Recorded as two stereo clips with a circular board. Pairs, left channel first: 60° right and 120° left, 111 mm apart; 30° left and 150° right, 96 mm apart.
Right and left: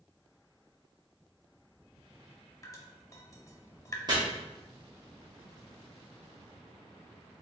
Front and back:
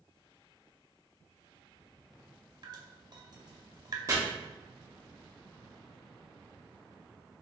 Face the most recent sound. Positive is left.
turn(degrees=165)